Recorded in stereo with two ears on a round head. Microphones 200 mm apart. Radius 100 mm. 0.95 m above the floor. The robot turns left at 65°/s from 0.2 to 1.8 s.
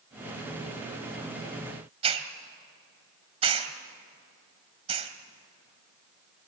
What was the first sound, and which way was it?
A hiss, 25° right (ahead or behind).